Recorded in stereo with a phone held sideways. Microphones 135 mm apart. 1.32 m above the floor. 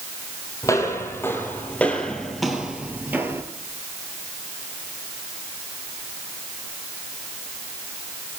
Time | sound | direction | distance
0.6 | footsteps | 20° left (ahead or behind) | 3 m